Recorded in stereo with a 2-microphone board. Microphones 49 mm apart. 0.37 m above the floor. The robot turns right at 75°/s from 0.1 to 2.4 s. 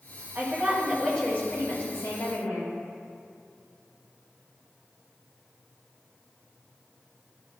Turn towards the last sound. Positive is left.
turn(degrees=115)